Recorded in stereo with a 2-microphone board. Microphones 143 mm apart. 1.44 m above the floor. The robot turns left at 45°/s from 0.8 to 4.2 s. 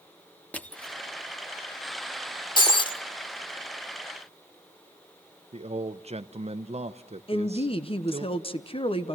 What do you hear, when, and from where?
0.5 s crushing: 10° left (ahead or behind), 1.0 m; by 1.0 s 5° left (ahead or behind), 1.0 m
2.6 s breaking glass: 35° left (ahead or behind), 1.2 m
5.5 s a man speaking: 50° right (ahead or behind), 0.8 m
7.3 s a woman speaking: 45° left (ahead or behind), 1.0 m